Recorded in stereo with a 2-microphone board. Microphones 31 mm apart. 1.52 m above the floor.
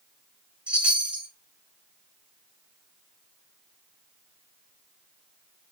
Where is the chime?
45° right (ahead or behind), 2.0 m.